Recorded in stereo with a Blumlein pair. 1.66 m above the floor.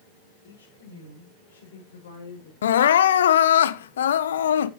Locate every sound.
0.4 s a woman speaking: 65° left, 6.5 m; by 2.5 s 55° left, 5.5 m
2.6 s crying: 65° left, 0.8 m